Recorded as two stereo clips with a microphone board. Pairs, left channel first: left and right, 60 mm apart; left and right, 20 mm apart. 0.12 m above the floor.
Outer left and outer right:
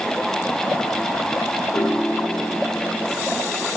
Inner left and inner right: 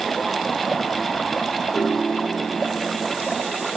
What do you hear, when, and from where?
1.7 s a piano: 70° left (ahead or behind), 4.5 m